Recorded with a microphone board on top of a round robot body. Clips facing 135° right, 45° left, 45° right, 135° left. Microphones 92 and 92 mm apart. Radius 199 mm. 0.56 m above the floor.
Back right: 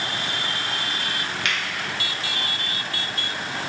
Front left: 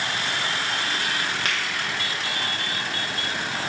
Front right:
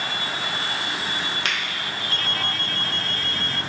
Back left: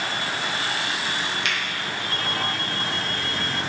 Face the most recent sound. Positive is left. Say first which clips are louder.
# even, front right 2 dB
turn(degrees=-5)